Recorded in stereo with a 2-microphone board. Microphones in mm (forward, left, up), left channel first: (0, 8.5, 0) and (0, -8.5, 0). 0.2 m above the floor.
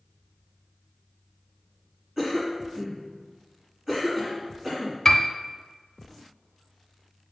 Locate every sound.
2.2 s a cough: 20° right (ahead or behind), 1.9 m
5.0 s a piano: 20° left (ahead or behind), 0.8 m